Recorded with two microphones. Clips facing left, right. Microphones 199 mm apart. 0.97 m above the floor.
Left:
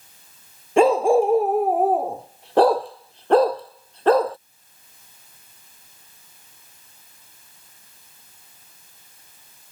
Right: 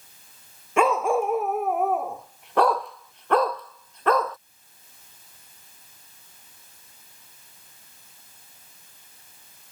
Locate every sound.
0.8 s a dog barking: 30° left (ahead or behind)